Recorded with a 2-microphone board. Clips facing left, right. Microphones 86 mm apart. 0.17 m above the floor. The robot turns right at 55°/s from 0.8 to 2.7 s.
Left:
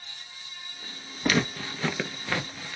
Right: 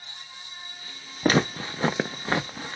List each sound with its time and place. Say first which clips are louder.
1.2 s footsteps: right 4 dB; 40° right (ahead or behind), 0.8 m; by 2.8 s 35° right (ahead or behind), 0.8 m